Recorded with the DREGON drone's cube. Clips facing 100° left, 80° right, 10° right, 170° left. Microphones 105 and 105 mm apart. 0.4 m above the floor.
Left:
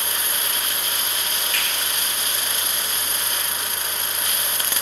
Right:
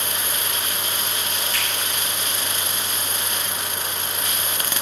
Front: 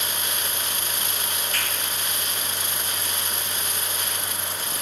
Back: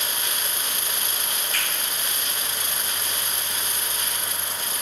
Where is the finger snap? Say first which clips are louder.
Left 1 dB, even; 40° right, 1.1 m.